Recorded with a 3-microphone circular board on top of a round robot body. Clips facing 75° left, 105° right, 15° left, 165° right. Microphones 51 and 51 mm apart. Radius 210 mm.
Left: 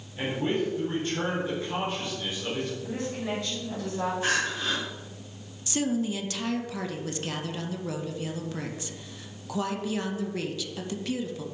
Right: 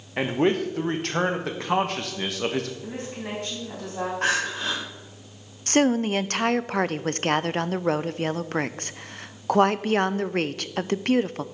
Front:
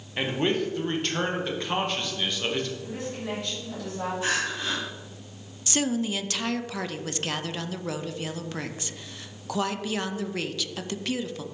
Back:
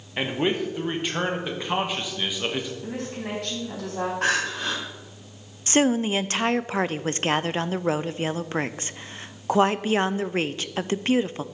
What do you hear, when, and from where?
0.2 s a man speaking: 85° right, 1.2 m
2.8 s a woman speaking: 150° right, 4 m
4.2 s crying: 135° right, 1.6 m
5.7 s a woman speaking: 120° right, 0.5 m